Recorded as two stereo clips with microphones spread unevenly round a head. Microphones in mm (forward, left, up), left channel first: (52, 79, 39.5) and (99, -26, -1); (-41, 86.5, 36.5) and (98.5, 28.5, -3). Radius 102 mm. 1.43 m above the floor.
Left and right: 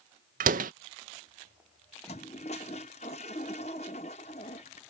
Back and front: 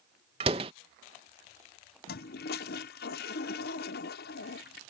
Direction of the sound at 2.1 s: 165° left.